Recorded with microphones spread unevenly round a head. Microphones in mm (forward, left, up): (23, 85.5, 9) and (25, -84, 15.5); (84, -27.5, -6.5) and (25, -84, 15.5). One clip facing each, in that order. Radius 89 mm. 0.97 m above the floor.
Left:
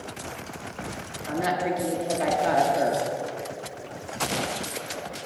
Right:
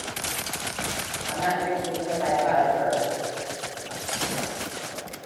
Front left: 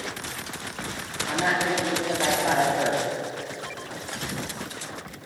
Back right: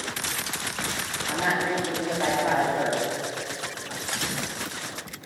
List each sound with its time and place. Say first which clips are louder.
1.3 s a woman speaking: even, front left 1 dB; 130° left, 2 m